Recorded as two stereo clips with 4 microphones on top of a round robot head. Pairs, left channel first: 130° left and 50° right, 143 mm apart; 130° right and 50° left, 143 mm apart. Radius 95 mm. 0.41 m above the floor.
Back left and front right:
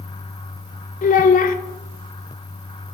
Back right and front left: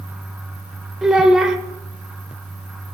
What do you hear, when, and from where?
1.0 s a child speaking: 135° left, 0.8 m